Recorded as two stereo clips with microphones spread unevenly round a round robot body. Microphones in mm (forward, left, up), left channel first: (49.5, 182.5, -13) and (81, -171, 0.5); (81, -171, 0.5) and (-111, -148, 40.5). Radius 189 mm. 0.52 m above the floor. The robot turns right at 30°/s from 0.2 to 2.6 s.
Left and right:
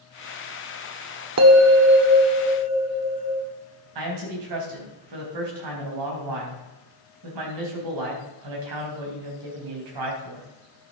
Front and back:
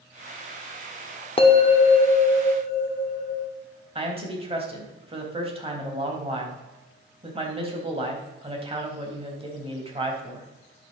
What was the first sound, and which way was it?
A bell, 50° right.